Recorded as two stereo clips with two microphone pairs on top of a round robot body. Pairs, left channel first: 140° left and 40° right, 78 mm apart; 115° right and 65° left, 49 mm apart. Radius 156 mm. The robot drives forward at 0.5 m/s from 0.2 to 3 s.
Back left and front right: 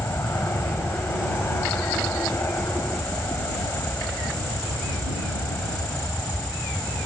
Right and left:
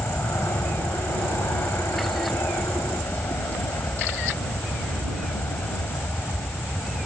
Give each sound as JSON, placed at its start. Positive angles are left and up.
{"t": 0.0, "sound": "an aircraft", "azimuth_deg": -160}